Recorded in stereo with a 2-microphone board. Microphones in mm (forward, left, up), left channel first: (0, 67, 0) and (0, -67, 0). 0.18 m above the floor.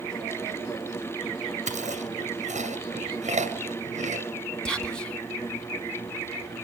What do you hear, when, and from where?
1.7 s chewing: 60° right (ahead or behind), 2 m
4.7 s whispering: 5° left (ahead or behind), 1.3 m